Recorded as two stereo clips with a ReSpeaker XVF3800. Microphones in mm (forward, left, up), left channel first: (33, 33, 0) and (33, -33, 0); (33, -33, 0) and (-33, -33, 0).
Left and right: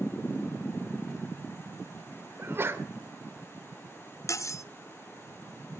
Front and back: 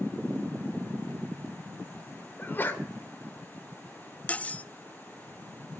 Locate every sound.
2.4 s a sneeze: 50° right, 1.9 m
4.3 s cutlery clinking: 60° left, 0.5 m